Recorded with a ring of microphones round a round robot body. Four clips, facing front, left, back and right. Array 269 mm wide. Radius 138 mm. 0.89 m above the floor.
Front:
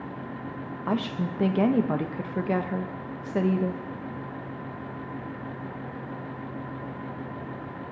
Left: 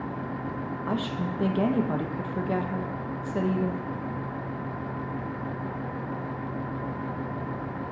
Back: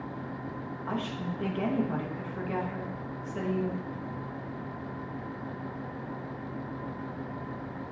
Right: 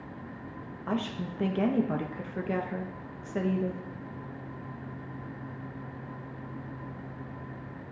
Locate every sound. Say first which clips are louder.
0.9 s a woman speaking: left 1 dB, front 6 dB; 10° left, 0.8 m